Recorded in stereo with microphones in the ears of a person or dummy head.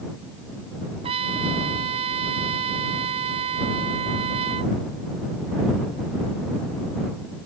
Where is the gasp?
I don't hear a gasp.